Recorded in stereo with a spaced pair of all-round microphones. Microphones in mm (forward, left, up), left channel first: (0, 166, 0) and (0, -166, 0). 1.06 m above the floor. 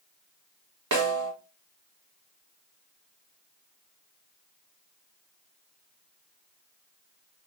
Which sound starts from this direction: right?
A snare drum, at 0.9 s.